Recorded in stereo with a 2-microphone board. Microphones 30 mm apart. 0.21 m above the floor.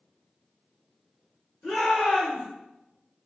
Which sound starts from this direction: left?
A shout, at 1.6 s.